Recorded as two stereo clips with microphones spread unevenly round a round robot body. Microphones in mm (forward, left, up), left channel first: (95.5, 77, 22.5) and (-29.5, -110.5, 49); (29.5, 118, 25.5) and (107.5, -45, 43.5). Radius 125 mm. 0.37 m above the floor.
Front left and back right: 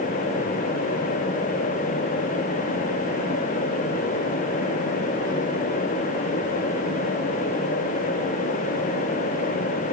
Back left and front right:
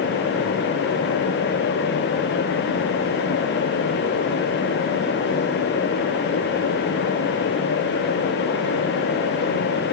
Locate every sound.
Only background noise.